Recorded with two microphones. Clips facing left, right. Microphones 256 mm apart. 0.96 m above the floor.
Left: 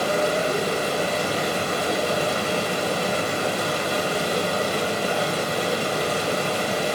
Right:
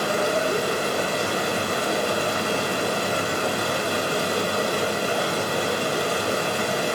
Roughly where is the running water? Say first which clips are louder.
Left 1 dB; right.